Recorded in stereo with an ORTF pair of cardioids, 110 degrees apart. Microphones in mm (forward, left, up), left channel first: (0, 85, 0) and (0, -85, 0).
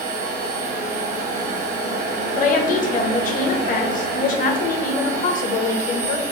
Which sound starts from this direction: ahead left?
A woman speaking, at 2.4 s.